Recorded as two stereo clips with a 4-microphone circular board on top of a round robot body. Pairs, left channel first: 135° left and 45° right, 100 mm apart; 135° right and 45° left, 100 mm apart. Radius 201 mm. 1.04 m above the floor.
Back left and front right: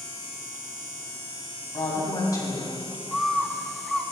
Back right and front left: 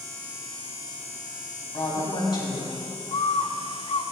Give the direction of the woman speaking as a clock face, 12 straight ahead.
6 o'clock.